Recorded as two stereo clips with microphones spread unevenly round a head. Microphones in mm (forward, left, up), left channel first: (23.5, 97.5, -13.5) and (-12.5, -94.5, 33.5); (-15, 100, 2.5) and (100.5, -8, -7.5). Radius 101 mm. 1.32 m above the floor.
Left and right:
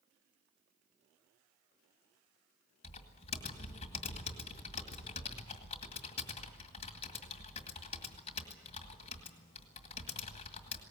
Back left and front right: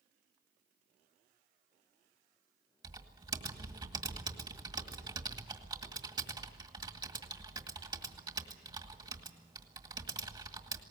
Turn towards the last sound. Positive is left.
turn(degrees=20)